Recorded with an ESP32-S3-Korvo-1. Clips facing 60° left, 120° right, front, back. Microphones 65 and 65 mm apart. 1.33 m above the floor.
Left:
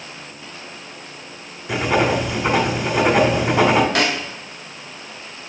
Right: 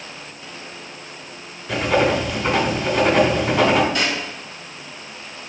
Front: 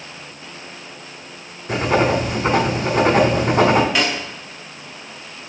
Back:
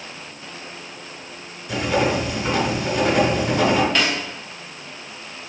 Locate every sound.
1.7 s writing: 5° right, 1.2 m
4.0 s a snare drum: 85° left, 1.2 m